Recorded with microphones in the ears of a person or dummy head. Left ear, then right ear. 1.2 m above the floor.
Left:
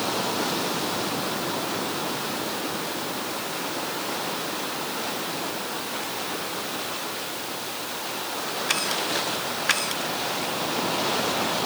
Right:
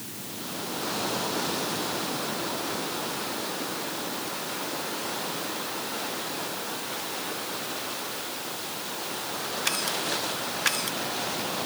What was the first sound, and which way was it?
Only background noise.